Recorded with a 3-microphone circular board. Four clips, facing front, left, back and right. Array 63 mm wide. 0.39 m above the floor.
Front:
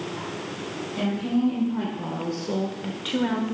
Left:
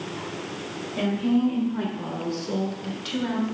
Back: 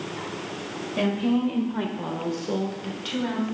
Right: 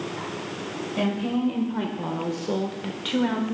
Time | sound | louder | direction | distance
1.0 | a woman speaking | left 3 dB, back 1 dB | 160° right | 1.5 m